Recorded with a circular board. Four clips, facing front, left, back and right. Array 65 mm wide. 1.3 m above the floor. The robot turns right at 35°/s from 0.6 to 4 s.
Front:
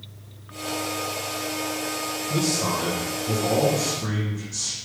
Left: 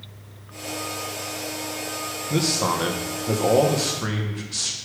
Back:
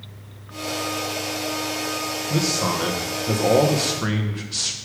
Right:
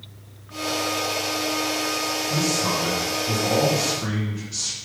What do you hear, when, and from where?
2.3 s a man speaking: 100° left, 1.0 m; by 4.8 s 160° left, 1.0 m